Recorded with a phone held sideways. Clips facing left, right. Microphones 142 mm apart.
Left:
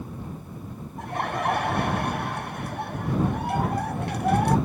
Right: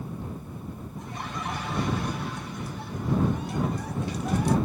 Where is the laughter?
65° left (ahead or behind).